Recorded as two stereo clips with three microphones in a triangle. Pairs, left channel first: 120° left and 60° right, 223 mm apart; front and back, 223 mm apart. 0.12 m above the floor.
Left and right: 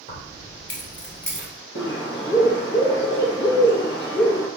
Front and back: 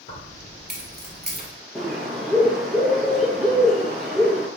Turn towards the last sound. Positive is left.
turn(degrees=90)